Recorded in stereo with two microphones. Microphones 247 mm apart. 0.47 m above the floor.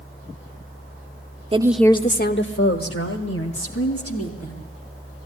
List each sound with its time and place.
1.5 s a woman speaking: 25° right (ahead or behind), 0.9 m; by 4.6 s 80° left, 4 m